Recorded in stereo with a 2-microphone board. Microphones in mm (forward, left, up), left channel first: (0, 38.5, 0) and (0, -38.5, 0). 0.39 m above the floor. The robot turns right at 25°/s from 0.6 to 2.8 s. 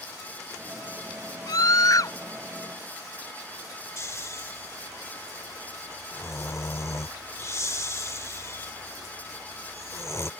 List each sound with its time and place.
1.5 s a scream: 60° left (ahead or behind); by 2.1 s 50° left (ahead or behind)
4.0 s snoring: 40° left (ahead or behind)